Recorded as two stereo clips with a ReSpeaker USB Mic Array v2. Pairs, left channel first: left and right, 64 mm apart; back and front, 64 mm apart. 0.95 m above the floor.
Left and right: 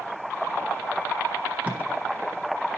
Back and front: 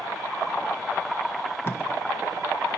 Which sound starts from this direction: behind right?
Tape being pulled, at 1.6 s.